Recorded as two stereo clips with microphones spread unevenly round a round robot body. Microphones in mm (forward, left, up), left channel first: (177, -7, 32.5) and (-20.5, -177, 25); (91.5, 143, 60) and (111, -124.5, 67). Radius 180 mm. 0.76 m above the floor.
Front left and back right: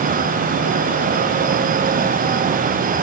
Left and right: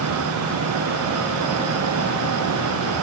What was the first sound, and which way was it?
Only background noise.